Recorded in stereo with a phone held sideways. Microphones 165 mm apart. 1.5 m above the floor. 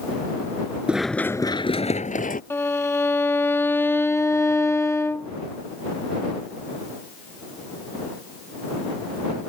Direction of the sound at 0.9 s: 5° right (ahead or behind).